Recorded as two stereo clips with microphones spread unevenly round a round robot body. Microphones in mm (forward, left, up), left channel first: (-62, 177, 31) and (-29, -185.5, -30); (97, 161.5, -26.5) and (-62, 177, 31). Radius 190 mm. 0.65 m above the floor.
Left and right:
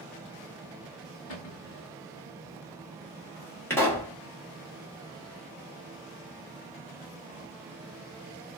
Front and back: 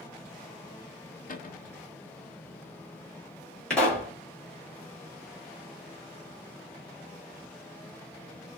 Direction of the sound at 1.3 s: 40° left.